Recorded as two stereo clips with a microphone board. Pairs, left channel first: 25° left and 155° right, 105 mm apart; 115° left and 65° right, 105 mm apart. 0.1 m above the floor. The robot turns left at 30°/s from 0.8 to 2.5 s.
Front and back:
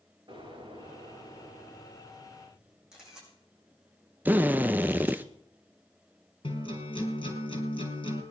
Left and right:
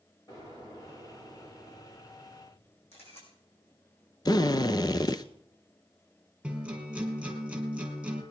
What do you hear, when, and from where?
0.3 s an explosion: 160° left, 9.5 m; by 2.8 s 110° left, 9.5 m
2.9 s a camera shutter: 120° left, 6 m
4.2 s a drill: 135° left, 0.6 m
6.4 s a guitar: 10° left, 3 m